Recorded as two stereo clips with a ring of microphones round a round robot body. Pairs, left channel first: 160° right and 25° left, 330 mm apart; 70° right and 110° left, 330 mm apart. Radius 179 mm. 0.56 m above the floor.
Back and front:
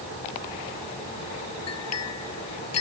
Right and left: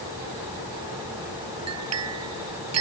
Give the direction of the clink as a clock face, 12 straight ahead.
7 o'clock.